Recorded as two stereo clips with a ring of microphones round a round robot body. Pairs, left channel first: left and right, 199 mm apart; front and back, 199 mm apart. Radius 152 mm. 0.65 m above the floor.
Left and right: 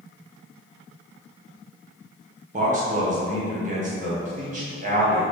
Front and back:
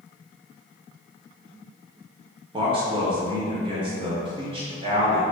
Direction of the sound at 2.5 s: 125° right.